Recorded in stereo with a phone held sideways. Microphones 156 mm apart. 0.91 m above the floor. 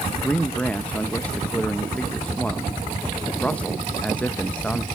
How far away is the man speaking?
About 0.7 m.